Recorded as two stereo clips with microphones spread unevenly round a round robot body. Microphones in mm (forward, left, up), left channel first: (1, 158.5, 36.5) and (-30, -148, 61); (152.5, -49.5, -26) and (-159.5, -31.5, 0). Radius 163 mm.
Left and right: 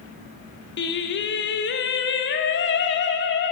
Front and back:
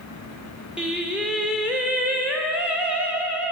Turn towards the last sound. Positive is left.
turn(degrees=85)